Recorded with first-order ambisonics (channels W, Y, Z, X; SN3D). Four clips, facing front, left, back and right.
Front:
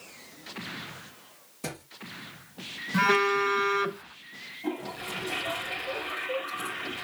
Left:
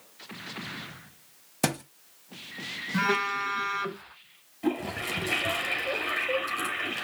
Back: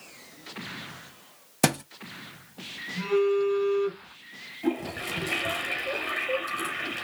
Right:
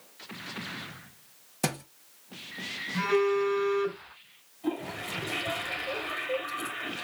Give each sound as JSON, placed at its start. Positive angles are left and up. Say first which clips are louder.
{"t": 1.6, "sound": "a thud", "louder": "left 3 dB, back 13 dB", "azimuth_deg": 165, "distance_m": 1.0}
{"t": 2.9, "sound": "a phone buzzing", "louder": "right 1 dB, front 1 dB", "azimuth_deg": 25, "distance_m": 1.9}
{"t": 4.6, "sound": "a toilet flushing", "louder": "left 4 dB, back 5 dB", "azimuth_deg": 130, "distance_m": 4.5}